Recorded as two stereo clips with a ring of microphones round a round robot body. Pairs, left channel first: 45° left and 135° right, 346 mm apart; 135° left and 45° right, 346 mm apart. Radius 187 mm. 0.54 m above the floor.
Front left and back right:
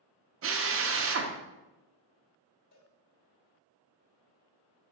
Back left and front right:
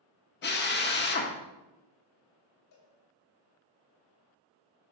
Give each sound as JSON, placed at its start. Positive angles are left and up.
{"t": 0.4, "sound": "a drill", "azimuth_deg": -175, "distance_m": 1.0}
{"t": 2.7, "sound": "a cowbell", "azimuth_deg": 100, "distance_m": 3.5}